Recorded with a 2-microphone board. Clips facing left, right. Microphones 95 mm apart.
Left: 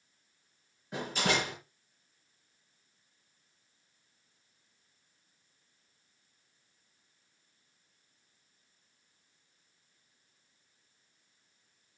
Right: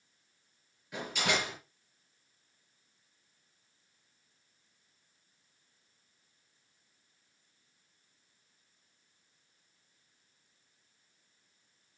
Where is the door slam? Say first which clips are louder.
Left 2 dB; 35° left (ahead or behind), 6.5 m.